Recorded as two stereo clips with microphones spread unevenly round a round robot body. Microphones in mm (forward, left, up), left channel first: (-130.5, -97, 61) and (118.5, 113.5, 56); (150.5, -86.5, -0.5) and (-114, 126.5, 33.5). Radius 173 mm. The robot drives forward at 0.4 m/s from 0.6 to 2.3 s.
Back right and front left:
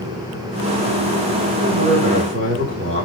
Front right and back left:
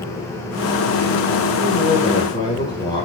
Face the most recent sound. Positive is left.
turn(degrees=25)